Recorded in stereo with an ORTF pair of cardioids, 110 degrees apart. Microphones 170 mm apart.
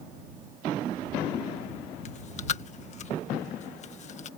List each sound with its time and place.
2.0 s chewing: 45° left